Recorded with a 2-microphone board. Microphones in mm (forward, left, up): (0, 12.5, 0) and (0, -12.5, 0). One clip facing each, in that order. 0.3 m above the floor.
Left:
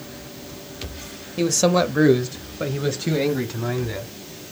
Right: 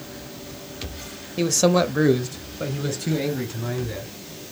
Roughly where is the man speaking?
Centre.